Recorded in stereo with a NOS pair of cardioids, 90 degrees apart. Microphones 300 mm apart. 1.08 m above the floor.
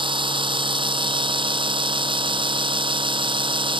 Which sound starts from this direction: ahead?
A machine running, at 0.0 s.